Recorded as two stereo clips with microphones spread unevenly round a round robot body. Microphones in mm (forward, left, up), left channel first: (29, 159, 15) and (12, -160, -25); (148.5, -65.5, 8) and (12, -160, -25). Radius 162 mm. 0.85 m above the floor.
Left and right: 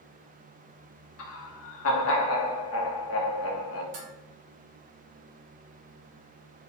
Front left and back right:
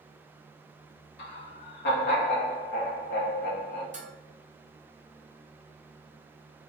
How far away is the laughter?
About 1.0 m.